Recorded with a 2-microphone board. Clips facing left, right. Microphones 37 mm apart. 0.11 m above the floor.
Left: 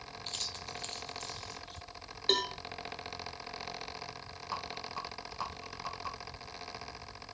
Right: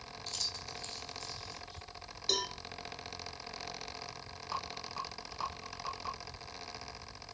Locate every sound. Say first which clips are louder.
0.3 s keys jangling: left 1 dB; 35° left (ahead or behind), 1.8 m; by 1.8 s 60° left (ahead or behind), 2.5 m
2.3 s a cowbell: left 4 dB; 40° left (ahead or behind), 1.5 m
4.5 s a rattle: even; 5° left (ahead or behind), 3.5 m